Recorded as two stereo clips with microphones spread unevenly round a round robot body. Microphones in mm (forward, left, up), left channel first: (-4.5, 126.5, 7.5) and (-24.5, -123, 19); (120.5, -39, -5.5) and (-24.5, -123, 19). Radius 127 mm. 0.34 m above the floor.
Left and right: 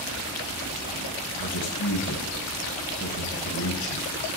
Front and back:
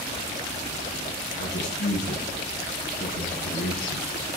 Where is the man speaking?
45° left, 2.5 m.